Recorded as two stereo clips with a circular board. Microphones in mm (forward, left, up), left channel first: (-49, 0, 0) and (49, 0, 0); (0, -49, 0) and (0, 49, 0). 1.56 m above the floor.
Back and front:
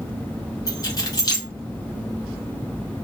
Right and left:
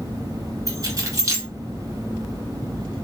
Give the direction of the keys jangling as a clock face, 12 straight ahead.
7 o'clock.